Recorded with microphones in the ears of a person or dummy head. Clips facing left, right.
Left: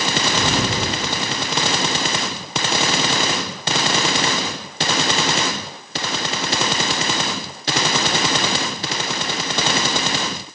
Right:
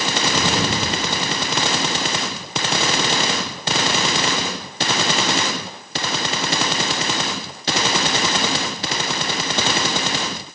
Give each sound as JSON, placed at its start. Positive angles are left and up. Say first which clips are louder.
{"t": 0.3, "sound": "an explosion", "louder": "right 1 dB", "side_deg": 45, "distance_m": 1.9}